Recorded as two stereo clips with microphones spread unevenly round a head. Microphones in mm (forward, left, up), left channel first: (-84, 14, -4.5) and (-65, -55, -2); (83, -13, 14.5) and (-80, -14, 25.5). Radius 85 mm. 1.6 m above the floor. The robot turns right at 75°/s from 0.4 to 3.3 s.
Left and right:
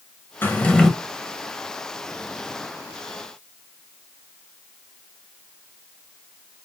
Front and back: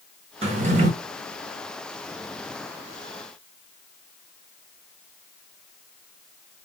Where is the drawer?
150° left, 0.8 m; by 0.9 s 175° right, 0.8 m.